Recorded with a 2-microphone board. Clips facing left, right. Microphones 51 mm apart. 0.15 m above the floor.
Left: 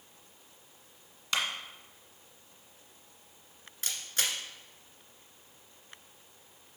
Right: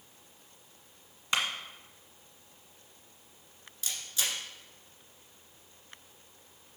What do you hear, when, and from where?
1.3 s a clap: 20° right (ahead or behind), 1.5 m
3.8 s a camera shutter: 50° left (ahead or behind), 1.7 m